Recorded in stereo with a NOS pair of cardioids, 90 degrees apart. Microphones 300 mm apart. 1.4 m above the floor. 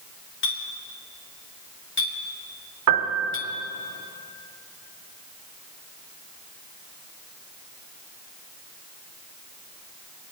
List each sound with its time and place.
0.4 s a clink: 40° left, 2 m
2.9 s a piano: 65° right, 2.5 m